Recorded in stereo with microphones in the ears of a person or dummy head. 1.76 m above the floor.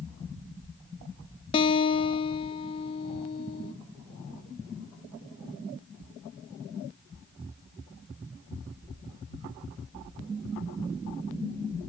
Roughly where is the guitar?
Left.